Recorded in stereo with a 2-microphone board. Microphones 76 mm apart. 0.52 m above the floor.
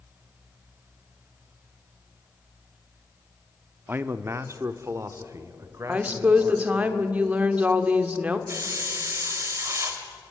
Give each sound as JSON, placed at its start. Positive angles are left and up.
{"t": 3.9, "sound": "a man speaking", "side_deg": -25, "distance_m": 0.8}
{"t": 5.9, "sound": "a woman speaking", "side_deg": -20, "distance_m": 1.5}
{"t": 8.5, "sound": "a hiss", "side_deg": -35, "distance_m": 2.5}